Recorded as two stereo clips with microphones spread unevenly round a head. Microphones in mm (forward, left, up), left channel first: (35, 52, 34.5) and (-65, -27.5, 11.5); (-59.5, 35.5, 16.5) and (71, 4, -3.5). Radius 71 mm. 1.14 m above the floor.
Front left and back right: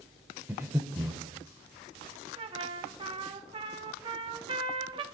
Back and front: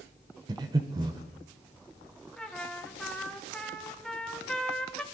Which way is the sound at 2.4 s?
105° right.